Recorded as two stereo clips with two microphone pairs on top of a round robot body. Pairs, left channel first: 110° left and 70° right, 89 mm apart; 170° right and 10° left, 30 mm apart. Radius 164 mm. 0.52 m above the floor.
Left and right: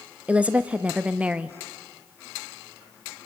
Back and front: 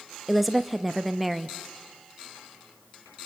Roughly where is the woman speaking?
Ahead right.